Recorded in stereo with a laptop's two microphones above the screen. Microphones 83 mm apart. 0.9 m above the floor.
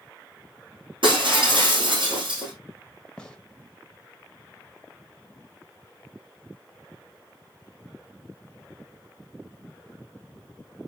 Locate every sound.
1.0 s breaking glass: 85° right, 6 m
3.2 s a gunshot: 10° left (ahead or behind), 1.3 m